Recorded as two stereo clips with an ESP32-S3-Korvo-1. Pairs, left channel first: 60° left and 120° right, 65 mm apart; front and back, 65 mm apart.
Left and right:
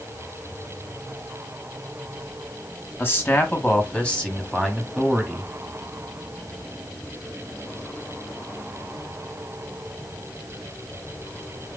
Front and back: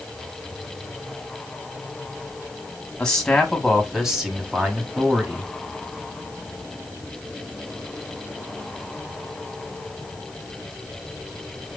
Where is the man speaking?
70° left, 1.6 m; by 5.5 s 170° left, 1.5 m.